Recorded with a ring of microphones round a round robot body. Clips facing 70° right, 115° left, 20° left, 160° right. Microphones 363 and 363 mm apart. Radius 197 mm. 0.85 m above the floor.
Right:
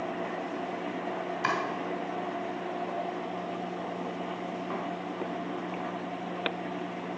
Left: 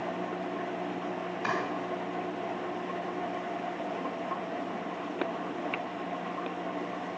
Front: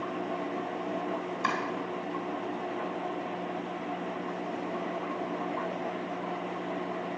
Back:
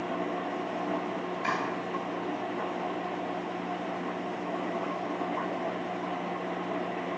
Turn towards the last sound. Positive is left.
turn(degrees=-40)